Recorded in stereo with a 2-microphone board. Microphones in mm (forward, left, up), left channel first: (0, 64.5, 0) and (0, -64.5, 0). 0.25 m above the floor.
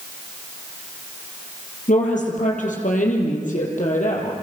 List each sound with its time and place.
1.9 s a woman speaking: 75° left (ahead or behind), 5.5 m